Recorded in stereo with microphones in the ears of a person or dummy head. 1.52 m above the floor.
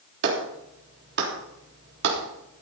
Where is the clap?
65° right (ahead or behind), 3.5 m.